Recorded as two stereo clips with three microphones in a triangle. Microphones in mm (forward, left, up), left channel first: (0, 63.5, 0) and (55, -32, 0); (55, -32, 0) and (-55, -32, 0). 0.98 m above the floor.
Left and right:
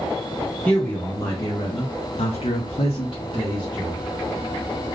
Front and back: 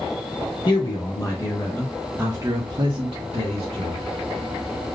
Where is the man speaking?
45° left, 1.2 m; by 4.0 s 175° left, 1.3 m.